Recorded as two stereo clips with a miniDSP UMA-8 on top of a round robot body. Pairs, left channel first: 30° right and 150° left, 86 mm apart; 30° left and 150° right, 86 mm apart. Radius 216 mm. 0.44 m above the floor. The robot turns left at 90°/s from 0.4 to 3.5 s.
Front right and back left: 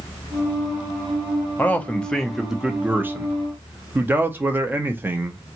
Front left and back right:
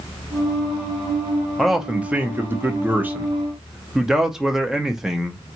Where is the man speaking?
55° right, 1.0 m; by 5.4 s 130° left, 1.0 m.